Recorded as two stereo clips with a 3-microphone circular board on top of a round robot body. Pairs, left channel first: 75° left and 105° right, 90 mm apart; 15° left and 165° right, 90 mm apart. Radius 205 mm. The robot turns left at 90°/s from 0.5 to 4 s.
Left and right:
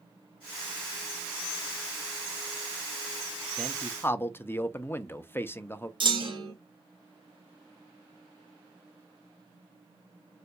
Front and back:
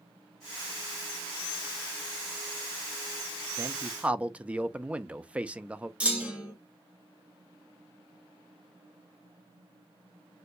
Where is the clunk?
90° right, 1.5 m.